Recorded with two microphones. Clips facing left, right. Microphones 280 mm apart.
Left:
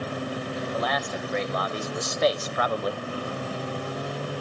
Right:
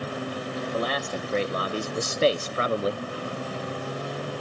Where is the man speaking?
35° right (ahead or behind), 1.8 m; by 3.0 s 25° right (ahead or behind), 0.5 m.